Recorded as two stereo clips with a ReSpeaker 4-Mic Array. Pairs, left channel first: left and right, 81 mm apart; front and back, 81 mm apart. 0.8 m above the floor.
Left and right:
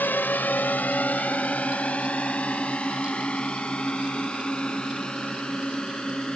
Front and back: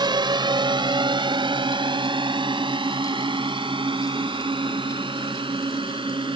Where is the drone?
155° left; by 6.4 s 170° left.